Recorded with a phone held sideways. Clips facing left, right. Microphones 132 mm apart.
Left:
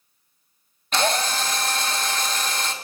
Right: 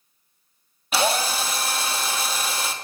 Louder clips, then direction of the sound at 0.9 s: Even; 5° right (ahead or behind).